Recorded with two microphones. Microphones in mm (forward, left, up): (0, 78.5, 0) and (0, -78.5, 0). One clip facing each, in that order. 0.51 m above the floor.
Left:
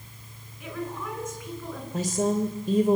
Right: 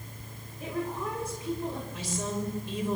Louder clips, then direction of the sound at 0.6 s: Right 1 dB; 35° right (ahead or behind).